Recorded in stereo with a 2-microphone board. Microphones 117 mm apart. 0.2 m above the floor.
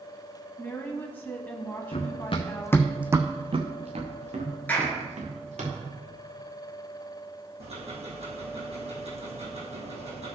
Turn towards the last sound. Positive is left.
turn(degrees=-65)  # may be behind; listen again after turning